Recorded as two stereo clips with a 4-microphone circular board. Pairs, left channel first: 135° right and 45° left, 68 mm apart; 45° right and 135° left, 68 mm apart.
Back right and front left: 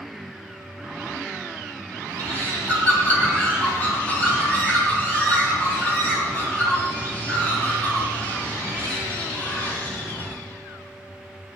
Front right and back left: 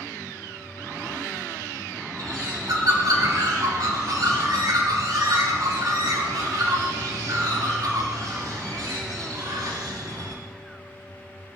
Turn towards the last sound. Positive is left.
turn(degrees=160)